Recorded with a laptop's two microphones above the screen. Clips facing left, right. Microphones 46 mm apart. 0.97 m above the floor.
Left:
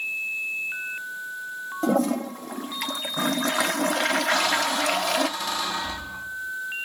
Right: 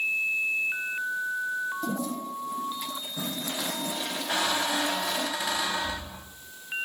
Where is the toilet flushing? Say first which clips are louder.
Left 8 dB; 70° left (ahead or behind), 0.5 m.